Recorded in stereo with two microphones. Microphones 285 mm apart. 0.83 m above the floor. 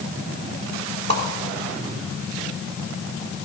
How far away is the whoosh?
About 2 m.